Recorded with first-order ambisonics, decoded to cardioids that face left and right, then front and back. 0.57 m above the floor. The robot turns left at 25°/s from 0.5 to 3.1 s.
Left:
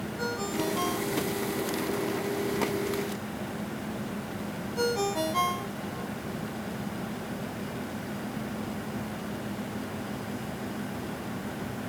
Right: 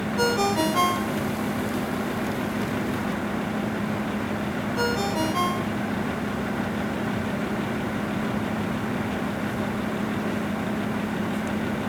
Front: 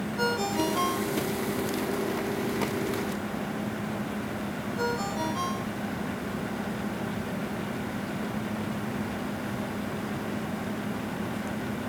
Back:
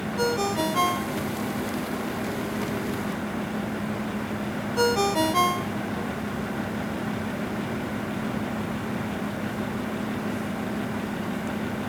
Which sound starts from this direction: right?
A ringtone, at 0.2 s.